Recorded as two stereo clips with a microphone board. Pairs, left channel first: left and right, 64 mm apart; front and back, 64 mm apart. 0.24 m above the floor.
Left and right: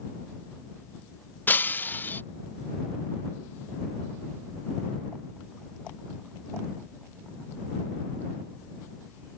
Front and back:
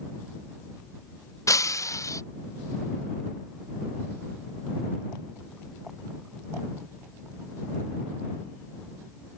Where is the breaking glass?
30° left.